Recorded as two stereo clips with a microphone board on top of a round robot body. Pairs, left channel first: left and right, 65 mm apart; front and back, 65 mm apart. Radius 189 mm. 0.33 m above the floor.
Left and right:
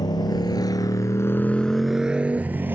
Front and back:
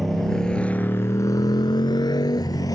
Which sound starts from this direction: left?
A motorcycle, at 0.0 s.